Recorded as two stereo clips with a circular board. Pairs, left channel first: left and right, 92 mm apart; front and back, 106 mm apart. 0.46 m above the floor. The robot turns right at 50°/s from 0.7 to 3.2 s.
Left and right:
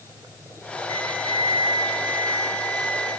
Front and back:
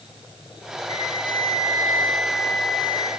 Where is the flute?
55° left, 9 m; by 3.1 s 165° left, 9 m.